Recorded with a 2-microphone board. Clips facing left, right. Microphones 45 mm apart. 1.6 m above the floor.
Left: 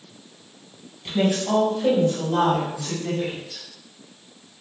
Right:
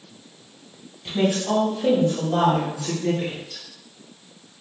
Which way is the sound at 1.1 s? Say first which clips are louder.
Even; 5° left (ahead or behind).